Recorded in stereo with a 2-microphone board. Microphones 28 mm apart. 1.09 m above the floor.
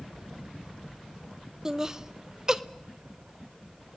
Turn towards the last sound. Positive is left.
turn(degrees=-20)  # may be behind; listen again after turning